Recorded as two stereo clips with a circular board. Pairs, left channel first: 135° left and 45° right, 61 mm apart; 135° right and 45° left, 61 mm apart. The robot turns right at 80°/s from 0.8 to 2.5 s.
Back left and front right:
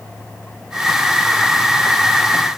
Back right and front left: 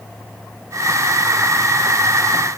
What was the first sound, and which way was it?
Only background noise.